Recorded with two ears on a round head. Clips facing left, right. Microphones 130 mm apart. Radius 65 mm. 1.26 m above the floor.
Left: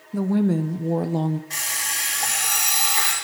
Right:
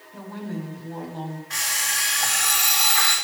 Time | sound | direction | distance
0.1 | a woman speaking | 60° left (ahead or behind) | 0.5 m
1.5 | an alarm clock | 15° left (ahead or behind) | 7 m